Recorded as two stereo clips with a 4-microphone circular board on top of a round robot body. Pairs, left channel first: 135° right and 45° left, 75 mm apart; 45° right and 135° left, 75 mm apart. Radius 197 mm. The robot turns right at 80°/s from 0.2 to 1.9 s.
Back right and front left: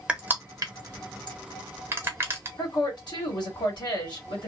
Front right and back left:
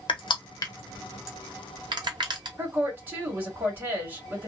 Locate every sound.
0.1 s crushing: 35° right, 0.8 m; by 2.5 s 105° left, 0.8 m
2.6 s a woman speaking: 160° right, 2 m